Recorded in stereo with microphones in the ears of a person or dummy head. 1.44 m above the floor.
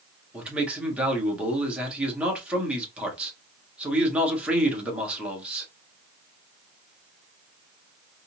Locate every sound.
0.3 s a man speaking: 5° left (ahead or behind), 1.6 m